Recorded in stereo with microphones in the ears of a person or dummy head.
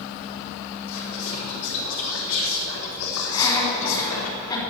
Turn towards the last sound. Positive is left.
turn(degrees=25)  # may be behind; listen again after turning